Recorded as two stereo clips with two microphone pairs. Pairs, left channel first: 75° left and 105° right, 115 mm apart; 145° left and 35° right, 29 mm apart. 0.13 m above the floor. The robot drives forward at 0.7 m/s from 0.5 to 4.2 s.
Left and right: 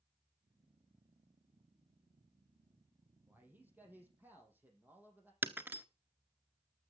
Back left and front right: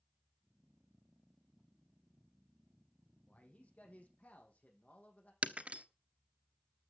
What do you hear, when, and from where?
3.3 s a man speaking: straight behind, 4.5 m
5.4 s breaking glass: 40° right, 0.9 m